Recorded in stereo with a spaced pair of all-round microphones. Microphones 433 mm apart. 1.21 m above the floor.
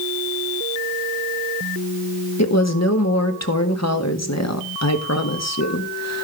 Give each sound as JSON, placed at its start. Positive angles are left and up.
{"t": 2.4, "sound": "a woman speaking", "side_deg": 35, "distance_m": 1.5}